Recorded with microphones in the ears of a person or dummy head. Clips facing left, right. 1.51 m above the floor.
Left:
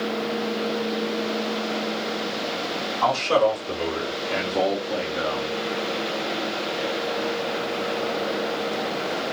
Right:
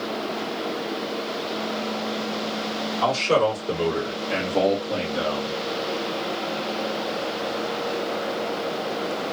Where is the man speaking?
60° right (ahead or behind), 3.5 m; by 5.5 s 80° right, 2.5 m.